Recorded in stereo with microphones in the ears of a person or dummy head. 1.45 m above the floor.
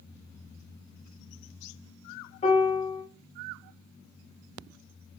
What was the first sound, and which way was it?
A piano, 45° left (ahead or behind).